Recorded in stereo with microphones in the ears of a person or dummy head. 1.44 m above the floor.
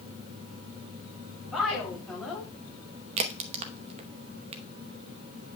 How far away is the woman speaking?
About 6 m.